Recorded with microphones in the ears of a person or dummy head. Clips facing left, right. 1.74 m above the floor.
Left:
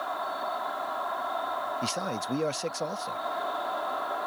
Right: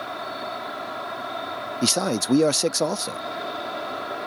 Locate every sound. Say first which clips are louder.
0.0 s an insect: right 1 dB; 35° right (ahead or behind)
1.8 s a man speaking: right 9 dB; 65° right (ahead or behind)